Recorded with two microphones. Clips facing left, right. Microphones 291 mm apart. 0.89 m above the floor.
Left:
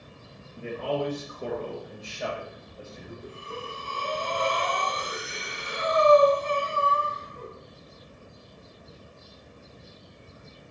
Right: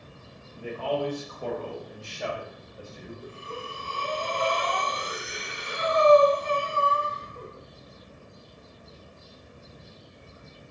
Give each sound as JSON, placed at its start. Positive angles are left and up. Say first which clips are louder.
{"t": 0.6, "sound": "a man speaking", "louder": "even", "side_deg": 25, "distance_m": 1.4}
{"t": 3.2, "sound": "breathing", "louder": "left 1 dB", "side_deg": -40, "distance_m": 1.1}